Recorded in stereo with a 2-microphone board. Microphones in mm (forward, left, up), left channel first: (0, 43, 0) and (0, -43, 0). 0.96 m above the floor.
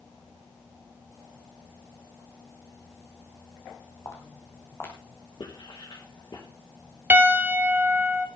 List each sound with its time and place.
4.0 s footsteps: 35° left (ahead or behind), 3 m; by 6.4 s 20° left (ahead or behind), 5 m
5.4 s writing: 65° left (ahead or behind), 4 m
7.1 s a piano: 20° right (ahead or behind), 1.1 m